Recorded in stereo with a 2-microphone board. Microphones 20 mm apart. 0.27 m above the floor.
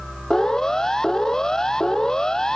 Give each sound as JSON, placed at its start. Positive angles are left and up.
{"t": 0.3, "sound": "a siren", "side_deg": 30}